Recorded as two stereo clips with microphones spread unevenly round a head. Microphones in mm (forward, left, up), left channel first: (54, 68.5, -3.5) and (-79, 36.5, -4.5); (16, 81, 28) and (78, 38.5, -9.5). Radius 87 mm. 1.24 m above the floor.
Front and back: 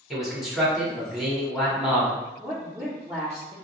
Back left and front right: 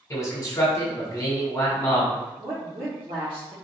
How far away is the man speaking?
About 1.2 m.